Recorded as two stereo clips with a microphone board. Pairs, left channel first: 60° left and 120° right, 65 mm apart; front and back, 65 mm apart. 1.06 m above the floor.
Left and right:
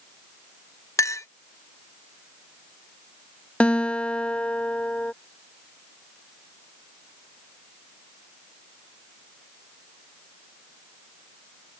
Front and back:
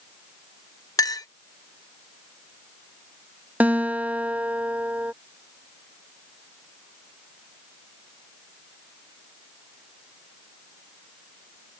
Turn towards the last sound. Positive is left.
turn(degrees=125)